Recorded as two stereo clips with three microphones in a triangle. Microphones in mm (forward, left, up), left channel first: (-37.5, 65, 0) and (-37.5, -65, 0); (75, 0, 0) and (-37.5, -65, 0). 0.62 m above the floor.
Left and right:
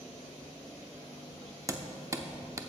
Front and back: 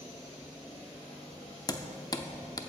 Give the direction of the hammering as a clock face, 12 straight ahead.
1 o'clock.